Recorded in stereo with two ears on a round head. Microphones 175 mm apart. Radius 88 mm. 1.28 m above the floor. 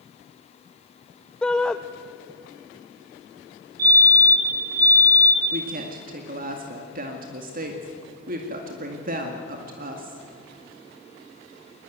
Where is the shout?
5° left (ahead or behind), 0.6 m.